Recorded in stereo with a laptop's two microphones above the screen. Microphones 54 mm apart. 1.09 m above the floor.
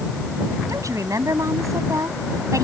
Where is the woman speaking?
80° right.